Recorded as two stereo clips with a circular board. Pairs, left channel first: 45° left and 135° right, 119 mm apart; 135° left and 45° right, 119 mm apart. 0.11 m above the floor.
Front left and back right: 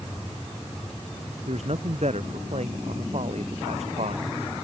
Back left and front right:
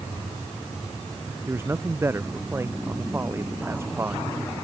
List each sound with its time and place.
1.5 s a man speaking: 115° right